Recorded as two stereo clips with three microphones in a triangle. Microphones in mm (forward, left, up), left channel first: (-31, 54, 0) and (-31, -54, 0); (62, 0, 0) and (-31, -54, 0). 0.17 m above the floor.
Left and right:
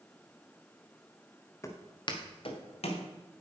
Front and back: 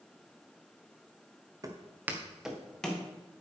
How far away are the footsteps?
About 1.7 m.